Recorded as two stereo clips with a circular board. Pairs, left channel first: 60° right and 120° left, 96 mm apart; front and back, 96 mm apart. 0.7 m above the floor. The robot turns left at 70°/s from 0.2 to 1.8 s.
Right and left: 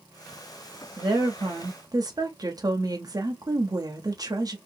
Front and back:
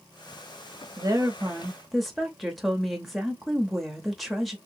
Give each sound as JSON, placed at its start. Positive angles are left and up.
{"t": 1.0, "sound": "a woman speaking", "azimuth_deg": 150, "distance_m": 0.7}